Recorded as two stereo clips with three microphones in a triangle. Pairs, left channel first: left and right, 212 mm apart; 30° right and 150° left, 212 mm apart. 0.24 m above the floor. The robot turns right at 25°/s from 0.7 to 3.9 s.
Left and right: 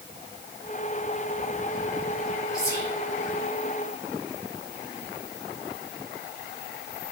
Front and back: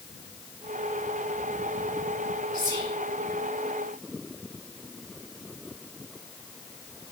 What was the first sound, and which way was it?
Whispering, 130° left.